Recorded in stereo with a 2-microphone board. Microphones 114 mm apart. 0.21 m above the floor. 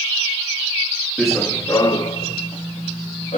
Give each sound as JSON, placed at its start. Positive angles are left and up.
{"t": 1.2, "sound": "running footsteps", "side_deg": 0, "distance_m": 0.9}